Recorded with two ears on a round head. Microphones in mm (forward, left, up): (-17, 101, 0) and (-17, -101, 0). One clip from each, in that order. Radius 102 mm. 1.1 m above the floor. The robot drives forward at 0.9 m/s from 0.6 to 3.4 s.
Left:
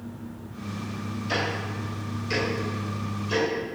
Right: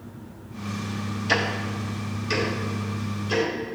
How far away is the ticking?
About 0.8 m.